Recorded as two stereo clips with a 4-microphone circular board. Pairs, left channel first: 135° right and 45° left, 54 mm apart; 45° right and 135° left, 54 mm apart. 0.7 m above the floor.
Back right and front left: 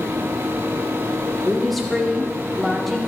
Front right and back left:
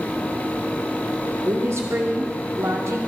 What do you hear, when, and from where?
1.4 s a woman speaking: 135° left, 2 m